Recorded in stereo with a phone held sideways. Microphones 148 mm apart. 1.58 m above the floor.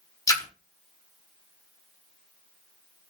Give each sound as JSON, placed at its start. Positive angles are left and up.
{"t": 0.3, "sound": "a splash", "side_deg": 25, "distance_m": 0.7}